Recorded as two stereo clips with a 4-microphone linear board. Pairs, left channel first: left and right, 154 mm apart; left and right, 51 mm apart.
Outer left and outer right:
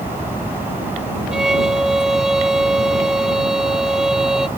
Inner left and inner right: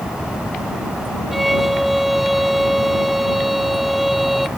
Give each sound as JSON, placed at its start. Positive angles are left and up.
{"t": 1.3, "sound": "a violin", "side_deg": -5}